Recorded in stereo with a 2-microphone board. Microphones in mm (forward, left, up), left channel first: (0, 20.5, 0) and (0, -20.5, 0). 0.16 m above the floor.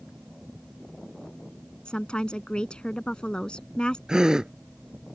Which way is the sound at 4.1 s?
15° right (ahead or behind).